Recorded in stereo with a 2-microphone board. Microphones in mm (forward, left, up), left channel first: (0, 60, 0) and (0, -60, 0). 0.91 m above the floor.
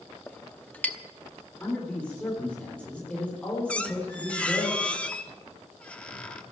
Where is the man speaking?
10° left (ahead or behind), 3.5 m.